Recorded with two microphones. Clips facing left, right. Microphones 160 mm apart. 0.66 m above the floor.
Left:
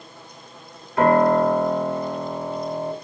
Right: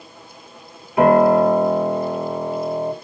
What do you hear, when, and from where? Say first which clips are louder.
1.0 s a piano: right 4 dB; 15° right (ahead or behind), 2.5 m